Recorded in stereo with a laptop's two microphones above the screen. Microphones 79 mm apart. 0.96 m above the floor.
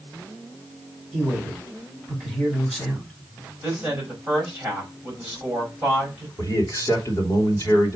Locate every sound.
1.1 s a man speaking: 10° right (ahead or behind), 5 m
3.6 s a woman speaking: 20° right (ahead or behind), 5.5 m
6.4 s a man speaking: 40° left (ahead or behind), 3 m